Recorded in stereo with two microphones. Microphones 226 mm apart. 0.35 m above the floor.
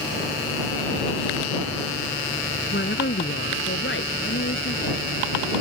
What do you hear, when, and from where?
2.7 s a woman speaking: 50° left (ahead or behind); by 5.5 s 65° left (ahead or behind)